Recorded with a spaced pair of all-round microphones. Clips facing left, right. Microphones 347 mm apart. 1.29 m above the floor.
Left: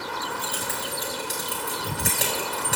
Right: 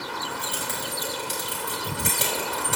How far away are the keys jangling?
About 4.5 m.